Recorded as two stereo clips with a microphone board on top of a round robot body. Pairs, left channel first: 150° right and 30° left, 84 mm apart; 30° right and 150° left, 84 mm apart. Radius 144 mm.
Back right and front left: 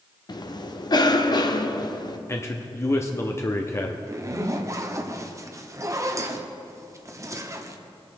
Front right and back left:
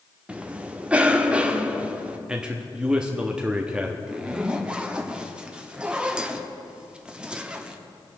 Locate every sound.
0.3 s a cough: 135° right, 1.3 m
2.3 s a man speaking: 140° right, 1.1 m
4.1 s a zipper: 75° left, 1.2 m